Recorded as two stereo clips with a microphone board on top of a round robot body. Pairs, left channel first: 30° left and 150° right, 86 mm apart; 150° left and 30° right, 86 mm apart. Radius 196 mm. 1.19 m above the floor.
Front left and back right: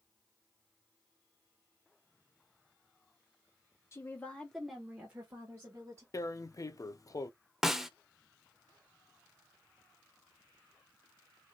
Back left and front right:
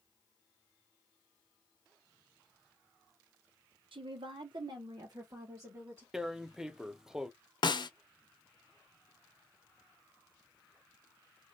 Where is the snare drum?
125° left, 0.7 m.